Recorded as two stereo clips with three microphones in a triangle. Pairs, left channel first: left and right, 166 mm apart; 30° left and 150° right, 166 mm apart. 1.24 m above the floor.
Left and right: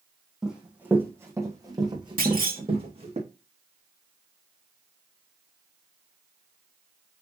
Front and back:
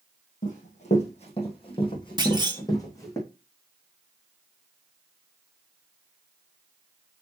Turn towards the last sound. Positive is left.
turn(degrees=-90)